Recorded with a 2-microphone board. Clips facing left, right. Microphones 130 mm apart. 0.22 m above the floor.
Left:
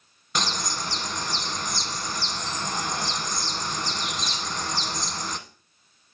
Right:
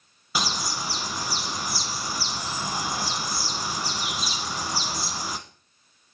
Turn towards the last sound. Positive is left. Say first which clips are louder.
# even
turn(degrees=-5)  # may be behind; listen again after turning